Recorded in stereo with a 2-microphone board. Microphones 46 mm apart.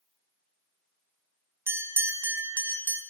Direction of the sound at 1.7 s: 65° right (ahead or behind).